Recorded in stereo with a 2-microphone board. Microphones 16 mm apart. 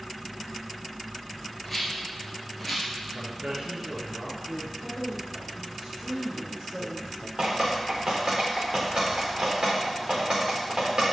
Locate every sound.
1.6 s a rattle: 5° right (ahead or behind), 3 m
3.1 s a man speaking: 65° right (ahead or behind), 3 m
4.8 s a woman speaking: 40° right (ahead or behind), 4 m
7.4 s dripping: 55° right (ahead or behind), 4 m